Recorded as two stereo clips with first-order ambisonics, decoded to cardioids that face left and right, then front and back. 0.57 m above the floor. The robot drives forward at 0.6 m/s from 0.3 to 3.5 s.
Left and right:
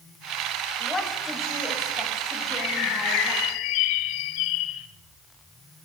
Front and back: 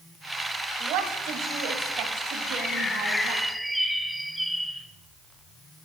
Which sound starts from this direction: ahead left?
A bird, at 2.5 s.